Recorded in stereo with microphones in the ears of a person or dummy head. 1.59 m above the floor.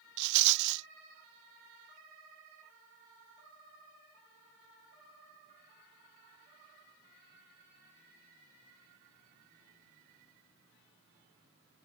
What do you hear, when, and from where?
0.2 s a rattle: 65° right (ahead or behind)